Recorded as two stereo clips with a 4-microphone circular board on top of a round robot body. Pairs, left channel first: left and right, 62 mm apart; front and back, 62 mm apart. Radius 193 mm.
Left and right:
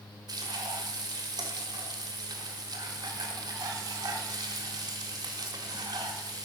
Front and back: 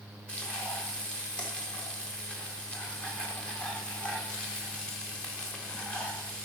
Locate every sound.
0.3 s frying: 75° right, 1.2 m